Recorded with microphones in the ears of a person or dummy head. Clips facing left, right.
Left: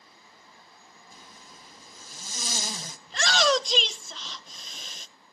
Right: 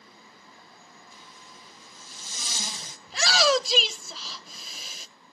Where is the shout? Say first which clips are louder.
Right 1 dB; centre (ahead or behind), 0.8 m.